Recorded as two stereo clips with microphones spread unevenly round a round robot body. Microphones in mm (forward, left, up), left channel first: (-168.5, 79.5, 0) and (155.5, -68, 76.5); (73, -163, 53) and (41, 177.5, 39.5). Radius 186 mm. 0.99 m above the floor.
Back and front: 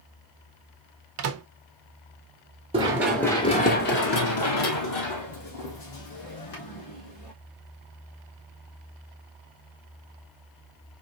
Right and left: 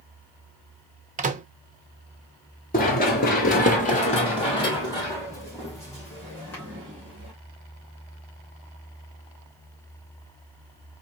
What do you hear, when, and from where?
1.2 s a microwave: 30° left, 0.7 m
2.7 s running footsteps: 50° right, 1.0 m; by 7.3 s 170° right, 3.5 m